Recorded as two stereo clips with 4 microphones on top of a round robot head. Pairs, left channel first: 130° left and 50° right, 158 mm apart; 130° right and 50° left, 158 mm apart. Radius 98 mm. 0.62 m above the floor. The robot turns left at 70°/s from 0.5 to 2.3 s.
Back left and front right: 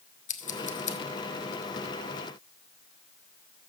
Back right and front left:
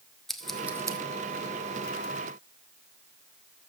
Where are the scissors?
140° left, 1.4 m; by 1.0 s 105° left, 1.4 m.